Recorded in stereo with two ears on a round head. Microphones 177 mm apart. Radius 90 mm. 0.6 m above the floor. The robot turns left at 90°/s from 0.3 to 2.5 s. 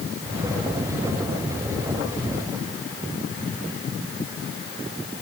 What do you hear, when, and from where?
Only background noise.